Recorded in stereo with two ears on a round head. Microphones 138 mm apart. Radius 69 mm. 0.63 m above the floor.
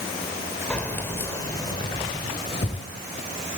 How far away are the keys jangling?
About 1.6 m.